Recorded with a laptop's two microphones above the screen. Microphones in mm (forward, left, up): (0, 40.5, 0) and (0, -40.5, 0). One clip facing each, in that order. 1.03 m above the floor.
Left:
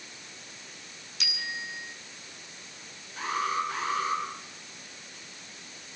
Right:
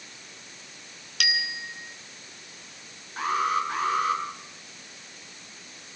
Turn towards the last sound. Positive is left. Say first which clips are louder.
# right 4 dB
turn(degrees=-45)  # may be behind; listen again after turning